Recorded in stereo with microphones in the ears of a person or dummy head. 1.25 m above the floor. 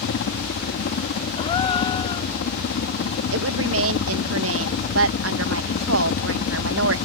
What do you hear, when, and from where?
0.0 s a helicopter: 60° left (ahead or behind); by 7.1 s 50° left (ahead or behind)
1.4 s a gasp: 30° left (ahead or behind)
3.3 s a woman speaking: 75° right (ahead or behind)